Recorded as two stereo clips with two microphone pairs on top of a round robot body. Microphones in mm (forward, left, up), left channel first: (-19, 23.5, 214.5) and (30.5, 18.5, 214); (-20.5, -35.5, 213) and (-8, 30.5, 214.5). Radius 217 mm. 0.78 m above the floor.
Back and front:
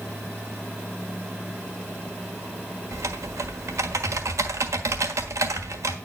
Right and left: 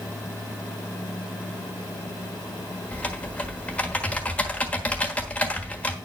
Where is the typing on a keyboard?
30° right, 1.4 m.